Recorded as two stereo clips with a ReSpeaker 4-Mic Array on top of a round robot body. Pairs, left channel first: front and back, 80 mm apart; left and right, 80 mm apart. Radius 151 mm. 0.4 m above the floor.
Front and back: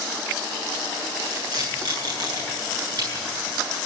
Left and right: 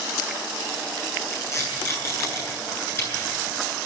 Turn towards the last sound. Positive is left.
turn(degrees=145)